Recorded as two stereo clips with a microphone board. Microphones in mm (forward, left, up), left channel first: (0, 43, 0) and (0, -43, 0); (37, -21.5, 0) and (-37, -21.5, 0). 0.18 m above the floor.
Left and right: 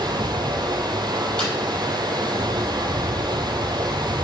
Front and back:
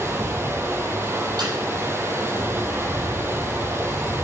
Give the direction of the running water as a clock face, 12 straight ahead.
4 o'clock.